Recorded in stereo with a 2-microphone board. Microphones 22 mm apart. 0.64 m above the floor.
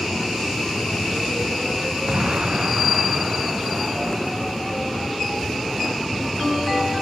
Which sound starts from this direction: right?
An explosion, at 2.1 s.